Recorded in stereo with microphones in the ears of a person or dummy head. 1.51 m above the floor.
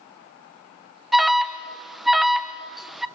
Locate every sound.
1.1 s an alarm: centre (ahead or behind), 0.7 m